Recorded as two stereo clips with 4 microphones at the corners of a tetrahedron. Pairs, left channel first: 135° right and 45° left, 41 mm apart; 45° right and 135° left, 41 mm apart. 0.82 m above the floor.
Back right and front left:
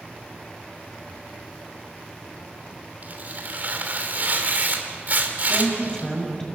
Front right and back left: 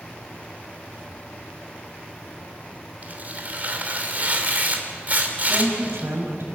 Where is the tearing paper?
90° left, 2.5 m.